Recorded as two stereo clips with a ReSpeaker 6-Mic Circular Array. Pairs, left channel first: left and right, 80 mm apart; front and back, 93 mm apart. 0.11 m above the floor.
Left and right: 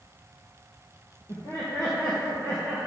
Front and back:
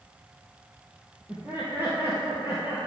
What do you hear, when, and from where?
1.3 s laughter: 120° left, 2.5 m